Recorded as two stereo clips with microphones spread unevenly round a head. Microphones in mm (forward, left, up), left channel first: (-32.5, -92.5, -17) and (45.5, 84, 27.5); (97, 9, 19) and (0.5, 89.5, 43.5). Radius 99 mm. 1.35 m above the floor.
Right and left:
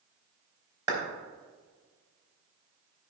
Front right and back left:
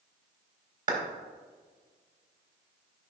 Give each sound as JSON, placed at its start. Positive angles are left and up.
{"t": 0.9, "sound": "a clap", "azimuth_deg": 140, "distance_m": 4.0}